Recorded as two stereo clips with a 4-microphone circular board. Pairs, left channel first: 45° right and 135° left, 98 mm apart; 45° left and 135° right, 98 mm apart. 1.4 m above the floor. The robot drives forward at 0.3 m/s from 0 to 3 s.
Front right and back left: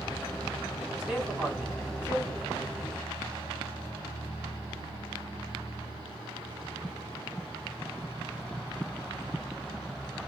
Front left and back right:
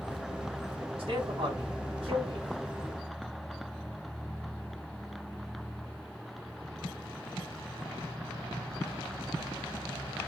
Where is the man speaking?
150° right, 1.9 m; by 2.5 s 155° right, 2.5 m.